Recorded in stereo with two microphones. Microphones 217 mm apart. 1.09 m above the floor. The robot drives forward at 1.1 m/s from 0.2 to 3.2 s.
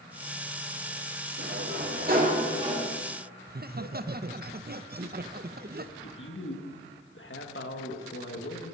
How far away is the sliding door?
About 1.5 m.